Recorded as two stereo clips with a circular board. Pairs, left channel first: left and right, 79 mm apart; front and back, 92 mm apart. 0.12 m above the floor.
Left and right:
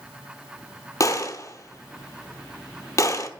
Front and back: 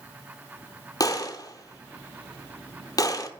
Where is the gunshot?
40° left, 0.9 m.